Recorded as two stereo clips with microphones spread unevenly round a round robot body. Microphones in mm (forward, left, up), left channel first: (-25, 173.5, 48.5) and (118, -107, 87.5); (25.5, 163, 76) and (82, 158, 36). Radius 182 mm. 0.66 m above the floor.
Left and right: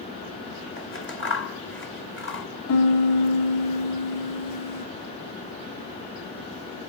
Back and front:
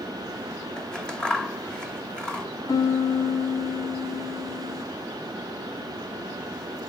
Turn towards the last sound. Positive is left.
turn(degrees=145)